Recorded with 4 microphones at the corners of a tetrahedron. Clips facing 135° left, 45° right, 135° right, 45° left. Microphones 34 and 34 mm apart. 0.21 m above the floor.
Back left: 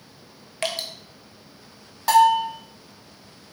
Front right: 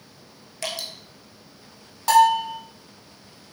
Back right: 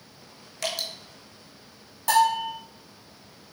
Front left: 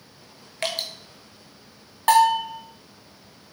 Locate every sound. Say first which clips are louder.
0.6 s dripping: back left 3 dB, front left 2 dB; 90° left, 0.7 m
2.1 s a bell: even, front left 4 dB; 50° left, 0.9 m